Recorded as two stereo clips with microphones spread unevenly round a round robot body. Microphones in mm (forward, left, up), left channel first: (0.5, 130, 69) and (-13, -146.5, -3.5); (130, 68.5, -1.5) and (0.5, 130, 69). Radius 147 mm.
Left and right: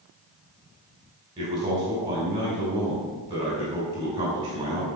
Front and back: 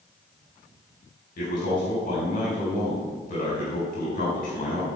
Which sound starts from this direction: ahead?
A man speaking, at 1.4 s.